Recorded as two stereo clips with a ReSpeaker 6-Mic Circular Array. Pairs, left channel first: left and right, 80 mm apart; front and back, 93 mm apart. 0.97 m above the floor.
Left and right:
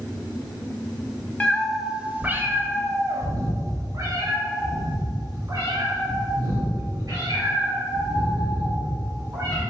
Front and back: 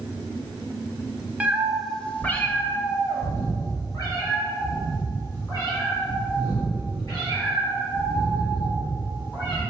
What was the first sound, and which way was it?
A cat meowing, 135° left.